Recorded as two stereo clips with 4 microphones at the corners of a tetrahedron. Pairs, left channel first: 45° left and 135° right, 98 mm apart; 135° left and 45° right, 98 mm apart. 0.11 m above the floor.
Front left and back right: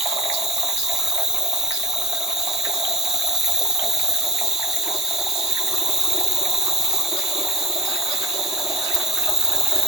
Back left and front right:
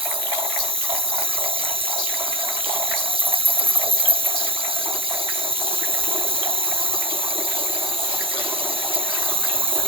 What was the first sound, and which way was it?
An insect, 50° right.